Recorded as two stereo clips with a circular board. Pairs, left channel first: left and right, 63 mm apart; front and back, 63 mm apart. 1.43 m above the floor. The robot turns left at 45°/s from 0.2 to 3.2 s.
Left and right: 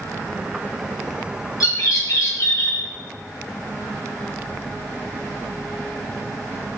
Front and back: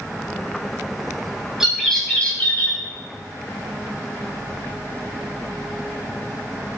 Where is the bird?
100° left, 3.5 m; by 2.8 s 45° left, 3.5 m.